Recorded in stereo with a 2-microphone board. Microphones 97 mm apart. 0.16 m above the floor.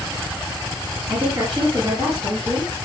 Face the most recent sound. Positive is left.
turn(degrees=-65)  # may be behind; listen again after turning